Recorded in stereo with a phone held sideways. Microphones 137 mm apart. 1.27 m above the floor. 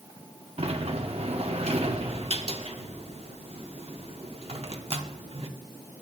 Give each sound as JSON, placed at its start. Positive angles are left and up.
{"t": 0.6, "sound": "a sliding door", "side_deg": -45, "distance_m": 1.0}